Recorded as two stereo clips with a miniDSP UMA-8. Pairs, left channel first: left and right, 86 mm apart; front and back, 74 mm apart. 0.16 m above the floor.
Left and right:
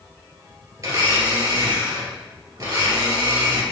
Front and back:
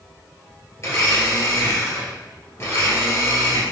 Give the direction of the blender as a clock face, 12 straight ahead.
2 o'clock.